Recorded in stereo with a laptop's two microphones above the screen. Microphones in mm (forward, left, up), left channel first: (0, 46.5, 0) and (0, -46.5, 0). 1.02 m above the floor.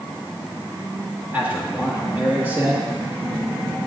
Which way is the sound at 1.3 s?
20° right (ahead or behind).